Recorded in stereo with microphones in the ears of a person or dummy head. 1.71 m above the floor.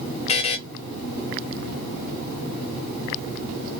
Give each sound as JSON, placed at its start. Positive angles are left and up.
{"t": 0.3, "sound": "a buzzer", "side_deg": 40, "distance_m": 0.6}